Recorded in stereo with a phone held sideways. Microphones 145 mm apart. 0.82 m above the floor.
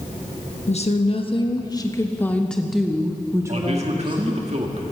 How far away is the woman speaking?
About 1.3 m.